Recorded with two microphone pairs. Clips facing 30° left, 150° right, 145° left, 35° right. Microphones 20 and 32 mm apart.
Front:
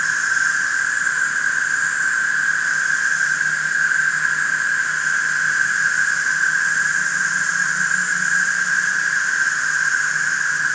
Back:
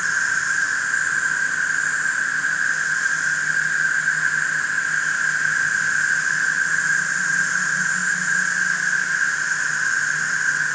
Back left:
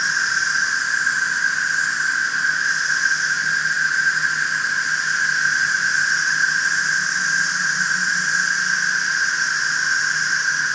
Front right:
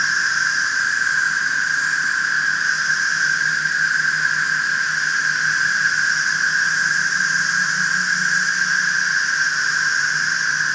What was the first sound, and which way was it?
An insect, 45° left.